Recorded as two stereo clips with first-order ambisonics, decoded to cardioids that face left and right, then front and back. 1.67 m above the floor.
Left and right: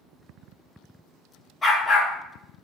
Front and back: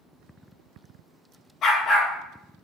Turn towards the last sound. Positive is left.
turn(degrees=30)